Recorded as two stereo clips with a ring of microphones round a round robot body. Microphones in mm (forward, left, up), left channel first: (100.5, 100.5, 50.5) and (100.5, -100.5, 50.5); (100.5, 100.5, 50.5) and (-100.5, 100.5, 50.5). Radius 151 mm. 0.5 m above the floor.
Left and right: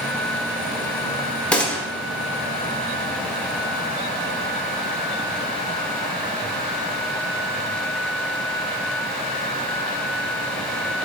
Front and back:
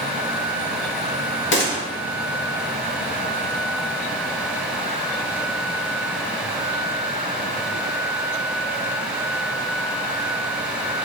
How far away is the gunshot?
About 1.0 m.